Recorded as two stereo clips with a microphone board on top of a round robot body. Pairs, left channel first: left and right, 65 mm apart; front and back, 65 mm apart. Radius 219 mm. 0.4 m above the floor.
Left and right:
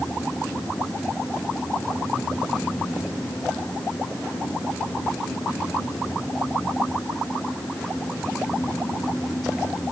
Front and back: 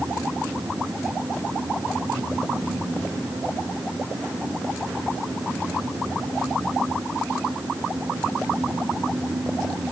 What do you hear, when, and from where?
Only background noise.